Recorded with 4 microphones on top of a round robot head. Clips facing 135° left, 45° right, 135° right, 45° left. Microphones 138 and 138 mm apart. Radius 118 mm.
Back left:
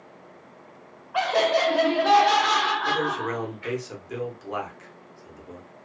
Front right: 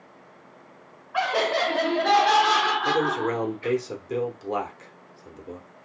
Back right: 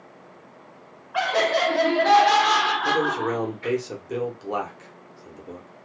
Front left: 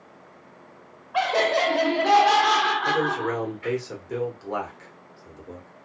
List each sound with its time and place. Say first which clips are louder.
1.1 s laughter: back left 2 dB, even; 85° left, 1.1 m; by 3.8 s 85° right, 1.1 m
2.9 s a man speaking: front right 3 dB, back right 1 dB; 75° right, 1.0 m